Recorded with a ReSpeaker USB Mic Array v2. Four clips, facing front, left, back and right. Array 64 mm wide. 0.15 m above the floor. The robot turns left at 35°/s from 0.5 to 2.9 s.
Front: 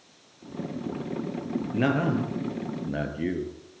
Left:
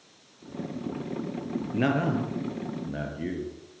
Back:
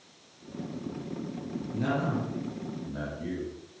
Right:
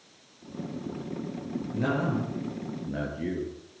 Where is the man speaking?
45° left, 2.5 m; by 3.5 s 5° left, 2.5 m.